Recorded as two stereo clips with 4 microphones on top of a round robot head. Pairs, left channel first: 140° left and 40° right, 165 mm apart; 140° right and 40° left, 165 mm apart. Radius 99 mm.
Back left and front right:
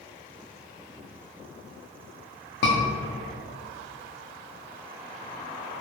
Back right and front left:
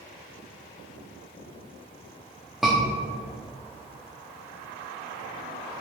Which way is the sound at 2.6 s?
130° left.